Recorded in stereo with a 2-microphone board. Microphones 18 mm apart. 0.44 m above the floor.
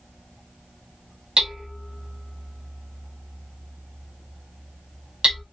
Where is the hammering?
40° right (ahead or behind), 1.3 m.